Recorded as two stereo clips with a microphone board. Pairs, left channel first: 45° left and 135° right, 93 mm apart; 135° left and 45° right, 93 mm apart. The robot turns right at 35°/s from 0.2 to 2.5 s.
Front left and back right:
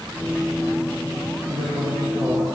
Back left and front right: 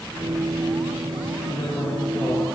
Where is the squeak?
I don't hear a squeak.